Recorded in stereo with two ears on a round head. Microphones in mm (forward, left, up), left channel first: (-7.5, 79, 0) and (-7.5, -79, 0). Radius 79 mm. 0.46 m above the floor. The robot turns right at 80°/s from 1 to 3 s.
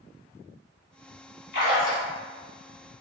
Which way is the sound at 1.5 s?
70° left.